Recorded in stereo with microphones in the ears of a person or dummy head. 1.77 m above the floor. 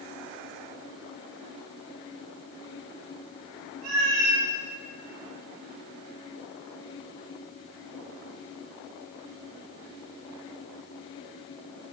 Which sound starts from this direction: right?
A cat meowing, at 3.8 s.